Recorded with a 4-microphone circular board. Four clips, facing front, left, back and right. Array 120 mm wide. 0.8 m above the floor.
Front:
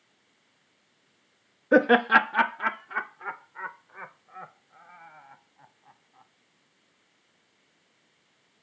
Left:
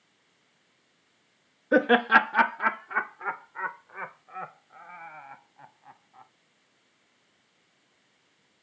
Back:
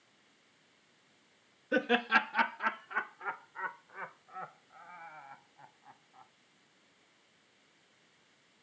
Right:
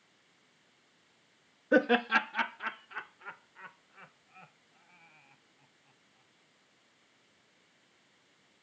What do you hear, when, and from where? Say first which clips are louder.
1.7 s laughter: left 6 dB, front 10 dB; 10° left; by 6.3 s 95° left